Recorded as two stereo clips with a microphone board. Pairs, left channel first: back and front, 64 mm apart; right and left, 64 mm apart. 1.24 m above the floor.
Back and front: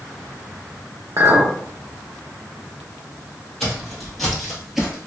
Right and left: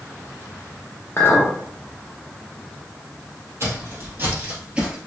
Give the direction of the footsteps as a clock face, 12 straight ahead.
9 o'clock.